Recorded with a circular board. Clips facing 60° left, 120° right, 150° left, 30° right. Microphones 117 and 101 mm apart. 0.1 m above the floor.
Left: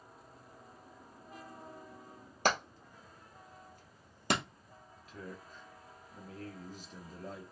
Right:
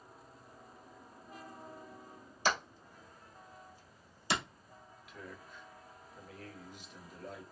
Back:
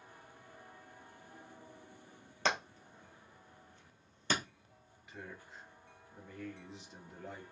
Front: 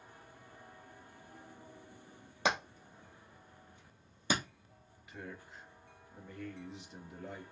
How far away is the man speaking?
About 1.5 m.